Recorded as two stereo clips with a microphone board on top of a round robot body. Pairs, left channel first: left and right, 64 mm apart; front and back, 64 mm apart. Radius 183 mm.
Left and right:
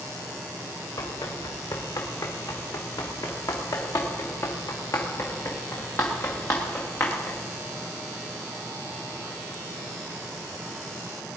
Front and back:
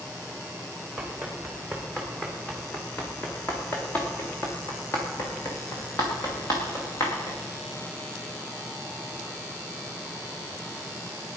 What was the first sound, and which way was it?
Running footsteps, 90° left.